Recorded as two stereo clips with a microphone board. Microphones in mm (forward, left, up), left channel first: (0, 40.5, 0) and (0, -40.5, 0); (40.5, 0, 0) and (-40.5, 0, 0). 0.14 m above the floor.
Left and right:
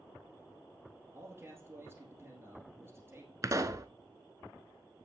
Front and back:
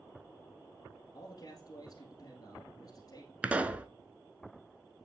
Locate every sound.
1.1 s a man speaking: 30° right, 2 m
3.4 s a pop: 115° right, 0.6 m